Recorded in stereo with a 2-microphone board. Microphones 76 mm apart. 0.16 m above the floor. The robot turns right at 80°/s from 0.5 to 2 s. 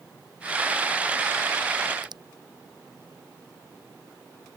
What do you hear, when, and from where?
2.0 s a finger snap: 65° right (ahead or behind)